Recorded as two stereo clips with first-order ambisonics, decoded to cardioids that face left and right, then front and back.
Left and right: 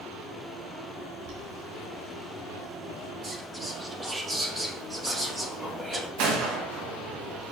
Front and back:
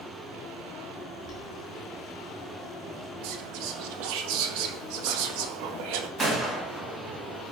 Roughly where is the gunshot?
Right.